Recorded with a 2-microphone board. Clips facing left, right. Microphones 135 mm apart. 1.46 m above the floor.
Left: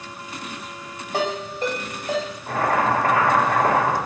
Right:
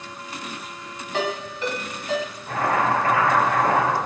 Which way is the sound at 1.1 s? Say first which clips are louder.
Left 2 dB; 45° left (ahead or behind).